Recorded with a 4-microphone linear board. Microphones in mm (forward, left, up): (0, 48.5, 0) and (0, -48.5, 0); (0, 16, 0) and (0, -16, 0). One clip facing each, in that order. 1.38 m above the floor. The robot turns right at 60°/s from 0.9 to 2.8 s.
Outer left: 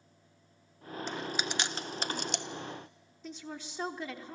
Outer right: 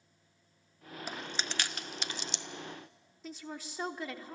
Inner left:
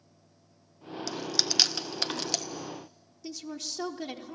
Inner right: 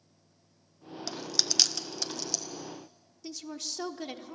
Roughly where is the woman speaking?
Centre.